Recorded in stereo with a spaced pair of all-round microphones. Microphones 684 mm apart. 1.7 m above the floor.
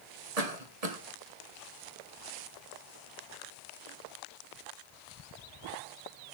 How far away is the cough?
About 1.5 m.